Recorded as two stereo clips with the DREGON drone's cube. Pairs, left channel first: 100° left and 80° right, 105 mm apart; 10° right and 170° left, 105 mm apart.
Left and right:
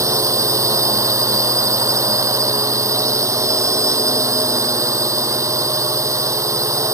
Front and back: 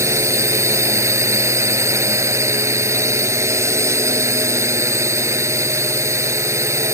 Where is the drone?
135° right.